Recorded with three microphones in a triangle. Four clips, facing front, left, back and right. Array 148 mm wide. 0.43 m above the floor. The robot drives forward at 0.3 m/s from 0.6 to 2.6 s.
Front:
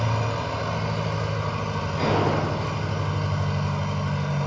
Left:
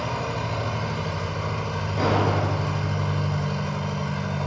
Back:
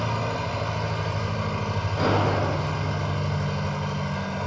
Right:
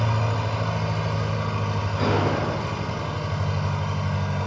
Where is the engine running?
70° right, 1.2 m; by 4.5 s 105° right, 1.2 m.